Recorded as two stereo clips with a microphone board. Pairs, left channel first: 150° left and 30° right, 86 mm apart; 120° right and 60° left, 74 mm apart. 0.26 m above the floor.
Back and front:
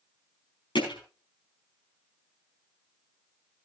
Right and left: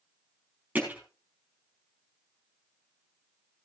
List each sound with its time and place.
0.8 s hammering: 130° left, 5 m